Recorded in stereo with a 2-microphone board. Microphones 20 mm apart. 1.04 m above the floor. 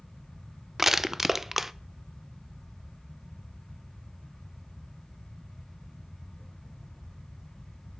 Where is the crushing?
15° right (ahead or behind), 0.5 m.